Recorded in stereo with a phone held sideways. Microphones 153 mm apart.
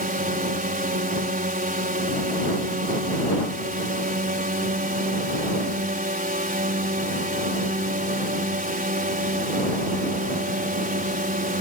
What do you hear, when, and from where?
0.0 s a drone: 60° right (ahead or behind)